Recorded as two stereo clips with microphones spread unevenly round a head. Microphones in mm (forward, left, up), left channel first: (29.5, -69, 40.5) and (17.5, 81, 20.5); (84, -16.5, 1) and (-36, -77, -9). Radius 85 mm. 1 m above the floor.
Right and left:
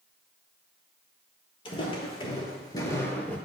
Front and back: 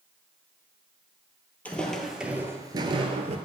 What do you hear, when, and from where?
1.6 s footsteps: 45° right, 1.5 m; by 3.4 s 155° right, 1.3 m